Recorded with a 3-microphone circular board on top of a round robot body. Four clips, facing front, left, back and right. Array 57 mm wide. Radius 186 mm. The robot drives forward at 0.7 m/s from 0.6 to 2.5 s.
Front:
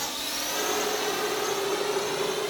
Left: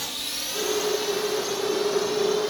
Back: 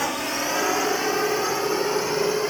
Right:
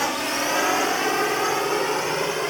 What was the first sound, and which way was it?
A drone, 125° right.